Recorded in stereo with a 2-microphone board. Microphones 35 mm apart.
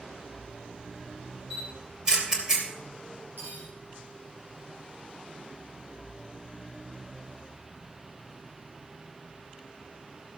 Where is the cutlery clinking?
70° right (ahead or behind), 6 m.